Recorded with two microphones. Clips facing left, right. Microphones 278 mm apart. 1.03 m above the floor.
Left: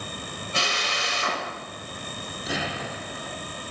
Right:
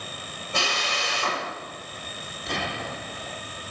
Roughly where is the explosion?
Centre.